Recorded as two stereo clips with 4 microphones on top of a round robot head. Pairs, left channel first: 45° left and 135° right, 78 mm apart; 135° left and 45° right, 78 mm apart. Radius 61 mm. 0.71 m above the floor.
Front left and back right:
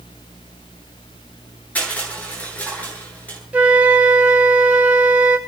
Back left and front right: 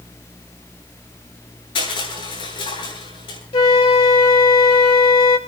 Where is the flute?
150° left, 3.5 m.